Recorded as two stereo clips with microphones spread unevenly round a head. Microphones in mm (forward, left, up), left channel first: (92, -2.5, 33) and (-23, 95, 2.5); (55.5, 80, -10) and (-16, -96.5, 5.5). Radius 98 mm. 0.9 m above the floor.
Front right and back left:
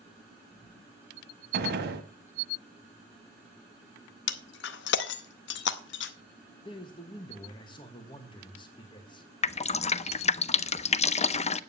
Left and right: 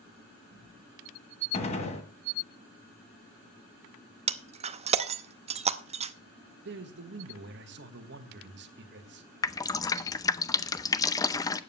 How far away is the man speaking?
About 1.3 m.